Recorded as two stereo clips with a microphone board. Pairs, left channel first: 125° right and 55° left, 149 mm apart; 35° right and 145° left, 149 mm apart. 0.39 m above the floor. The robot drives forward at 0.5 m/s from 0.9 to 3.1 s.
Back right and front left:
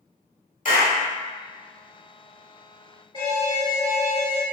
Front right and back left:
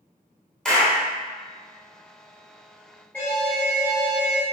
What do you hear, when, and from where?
0.7 s a clap: 120° right, 1.5 m
3.1 s an alarm: 105° right, 1.4 m